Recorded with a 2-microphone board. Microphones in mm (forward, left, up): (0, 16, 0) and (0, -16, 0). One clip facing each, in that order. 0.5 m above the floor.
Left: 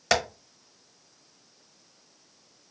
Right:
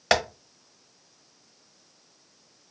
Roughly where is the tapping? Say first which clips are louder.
Right 2 dB; right.